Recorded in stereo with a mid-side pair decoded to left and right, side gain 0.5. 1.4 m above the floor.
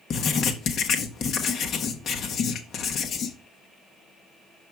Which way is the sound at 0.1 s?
60° left.